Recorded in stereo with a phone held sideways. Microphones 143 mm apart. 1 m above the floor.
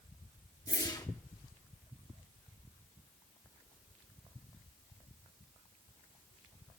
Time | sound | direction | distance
0.7 | a whoosh | 30° left (ahead or behind) | 1.4 m